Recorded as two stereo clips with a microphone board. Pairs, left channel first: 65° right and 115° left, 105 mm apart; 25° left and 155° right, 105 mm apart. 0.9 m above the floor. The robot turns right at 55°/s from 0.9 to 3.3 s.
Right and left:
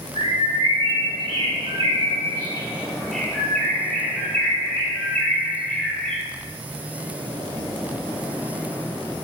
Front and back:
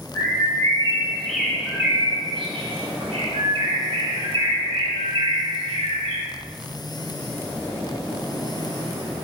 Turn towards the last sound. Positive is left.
turn(degrees=-145)